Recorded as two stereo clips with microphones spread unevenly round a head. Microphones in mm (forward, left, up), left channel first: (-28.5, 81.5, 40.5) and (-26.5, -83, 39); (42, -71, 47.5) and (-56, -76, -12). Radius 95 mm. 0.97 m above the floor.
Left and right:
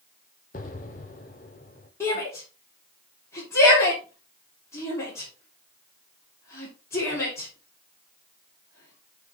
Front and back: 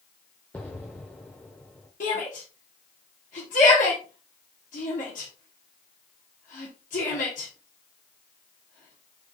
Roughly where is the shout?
Ahead.